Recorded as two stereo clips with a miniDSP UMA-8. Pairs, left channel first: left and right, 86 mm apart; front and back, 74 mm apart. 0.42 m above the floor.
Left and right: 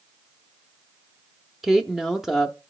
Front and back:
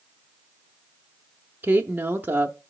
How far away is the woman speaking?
About 0.8 m.